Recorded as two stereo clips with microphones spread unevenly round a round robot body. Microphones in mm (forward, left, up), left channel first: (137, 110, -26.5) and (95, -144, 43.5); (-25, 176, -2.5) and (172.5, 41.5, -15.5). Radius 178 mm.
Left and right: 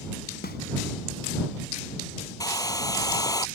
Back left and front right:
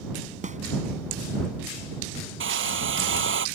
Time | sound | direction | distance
0.4 | a snare drum | 25° left | ?
2.4 | a hair dryer | straight ahead | ?